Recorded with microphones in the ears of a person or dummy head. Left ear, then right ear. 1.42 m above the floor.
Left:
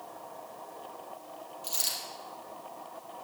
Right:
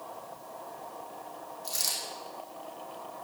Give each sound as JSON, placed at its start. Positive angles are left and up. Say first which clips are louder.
{"t": 1.6, "sound": "a dropped coin", "louder": "right 1 dB", "side_deg": 75, "distance_m": 4.5}